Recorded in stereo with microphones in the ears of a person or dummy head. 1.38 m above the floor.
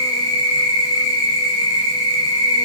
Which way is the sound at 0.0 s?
25° left (ahead or behind).